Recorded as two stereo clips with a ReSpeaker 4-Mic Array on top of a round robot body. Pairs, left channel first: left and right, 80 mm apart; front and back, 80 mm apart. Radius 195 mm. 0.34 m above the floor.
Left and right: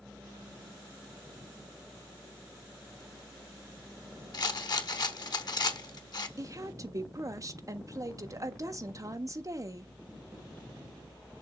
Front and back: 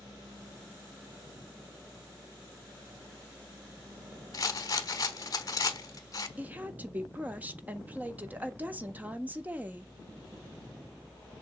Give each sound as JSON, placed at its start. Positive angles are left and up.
{"t": 4.3, "sound": "a rattle", "azimuth_deg": 50, "distance_m": 1.0}
{"t": 6.4, "sound": "a woman speaking", "azimuth_deg": -115, "distance_m": 1.5}